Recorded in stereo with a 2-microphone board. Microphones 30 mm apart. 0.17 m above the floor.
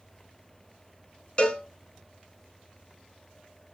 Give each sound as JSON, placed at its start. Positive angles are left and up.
{"t": 1.4, "sound": "a cowbell", "side_deg": 35, "distance_m": 0.7}